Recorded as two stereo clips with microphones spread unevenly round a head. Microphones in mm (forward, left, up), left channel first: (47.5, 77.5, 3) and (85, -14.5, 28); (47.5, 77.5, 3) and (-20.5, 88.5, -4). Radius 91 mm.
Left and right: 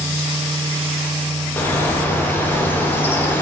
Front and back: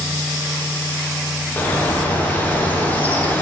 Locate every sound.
0.0 s a fan: 175° right, 1.2 m
1.6 s a bird: 55° left, 0.6 m